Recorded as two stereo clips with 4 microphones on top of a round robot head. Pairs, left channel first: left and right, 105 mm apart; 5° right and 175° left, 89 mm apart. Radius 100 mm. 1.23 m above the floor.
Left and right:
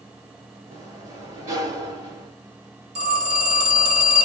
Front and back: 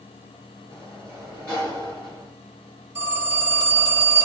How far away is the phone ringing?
About 1.8 m.